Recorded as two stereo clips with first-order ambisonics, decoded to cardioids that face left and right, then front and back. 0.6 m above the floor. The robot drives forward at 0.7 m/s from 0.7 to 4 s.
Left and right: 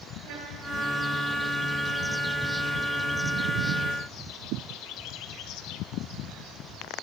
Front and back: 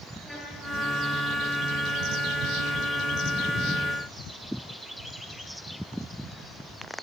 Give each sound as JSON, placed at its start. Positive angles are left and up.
{"t": 0.2, "sound": "a trumpet", "azimuth_deg": -80, "distance_m": 8.0}